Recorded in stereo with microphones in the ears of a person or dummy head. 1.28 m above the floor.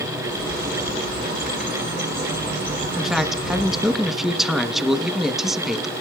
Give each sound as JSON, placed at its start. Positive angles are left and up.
{"t": 0.2, "sound": "a bird", "side_deg": -55, "distance_m": 5.0}
{"t": 3.0, "sound": "a man speaking", "side_deg": -5, "distance_m": 1.1}